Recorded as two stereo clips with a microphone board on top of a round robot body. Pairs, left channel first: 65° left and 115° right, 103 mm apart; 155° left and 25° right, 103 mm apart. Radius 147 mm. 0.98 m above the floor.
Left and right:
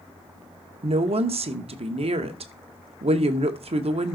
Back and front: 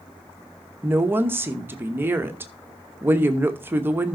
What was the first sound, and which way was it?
A woman speaking, 90° right.